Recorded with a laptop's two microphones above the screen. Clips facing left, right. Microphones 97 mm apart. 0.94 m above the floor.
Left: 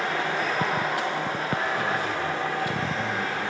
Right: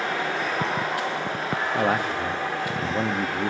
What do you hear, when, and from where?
1.7 s a man speaking: 60° right (ahead or behind), 1.1 m